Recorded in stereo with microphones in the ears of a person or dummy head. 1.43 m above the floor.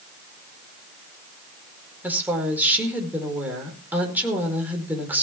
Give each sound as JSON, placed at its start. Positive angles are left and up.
{"t": 2.0, "sound": "a woman speaking", "side_deg": -5, "distance_m": 4.5}